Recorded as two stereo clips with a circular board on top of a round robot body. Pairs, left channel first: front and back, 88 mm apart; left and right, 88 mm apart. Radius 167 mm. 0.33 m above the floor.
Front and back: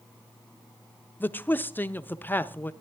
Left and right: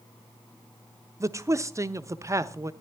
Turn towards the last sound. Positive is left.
turn(degrees=-55)